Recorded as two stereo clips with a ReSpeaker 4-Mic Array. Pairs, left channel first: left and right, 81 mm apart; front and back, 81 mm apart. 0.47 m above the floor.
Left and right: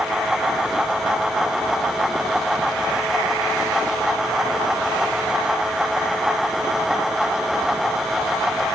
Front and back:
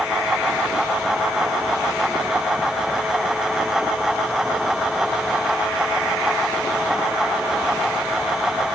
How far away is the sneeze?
I don't hear a sneeze.